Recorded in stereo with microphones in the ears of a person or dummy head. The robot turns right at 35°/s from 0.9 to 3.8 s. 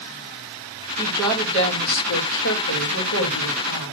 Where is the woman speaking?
15° left, 2.5 m; by 3.9 s 115° left, 2.5 m.